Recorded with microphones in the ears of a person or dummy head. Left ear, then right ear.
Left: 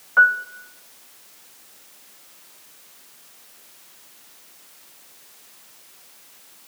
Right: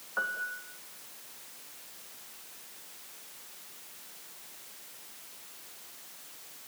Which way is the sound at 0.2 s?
60° left (ahead or behind).